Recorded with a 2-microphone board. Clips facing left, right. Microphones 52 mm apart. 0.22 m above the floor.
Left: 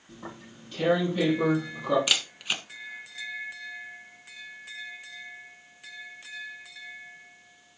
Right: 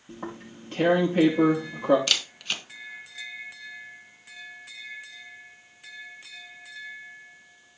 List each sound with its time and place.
0.1 s tearing paper: 40° right (ahead or behind), 6 m
2.1 s a camera shutter: 10° left (ahead or behind), 1.5 m